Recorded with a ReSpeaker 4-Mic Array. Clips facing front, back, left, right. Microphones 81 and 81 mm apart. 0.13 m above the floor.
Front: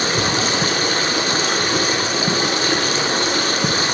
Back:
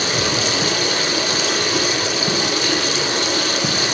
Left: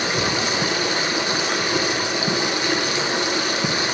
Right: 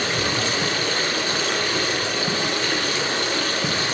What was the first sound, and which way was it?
Running water, 25° left.